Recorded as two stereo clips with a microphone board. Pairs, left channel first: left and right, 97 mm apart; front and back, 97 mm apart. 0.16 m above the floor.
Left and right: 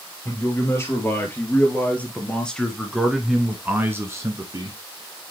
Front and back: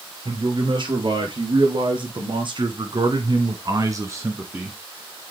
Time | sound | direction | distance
0.2 | a man speaking | 150° left | 3.5 m